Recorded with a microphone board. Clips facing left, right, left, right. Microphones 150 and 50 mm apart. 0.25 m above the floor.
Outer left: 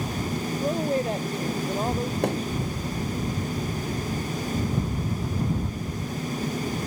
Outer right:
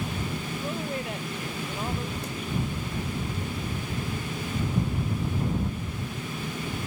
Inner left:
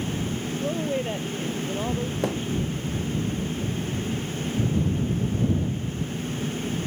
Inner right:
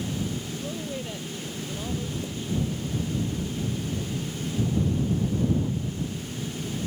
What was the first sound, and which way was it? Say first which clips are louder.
A woman speaking: outer left 9 dB, inner left 7 dB; 40° left (ahead or behind).